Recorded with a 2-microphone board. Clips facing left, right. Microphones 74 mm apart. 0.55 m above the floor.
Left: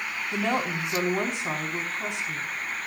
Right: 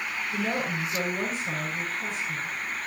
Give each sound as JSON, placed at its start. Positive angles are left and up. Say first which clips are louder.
{"t": 0.3, "sound": "a woman speaking", "louder": "left 3 dB", "side_deg": 70, "distance_m": 4.5}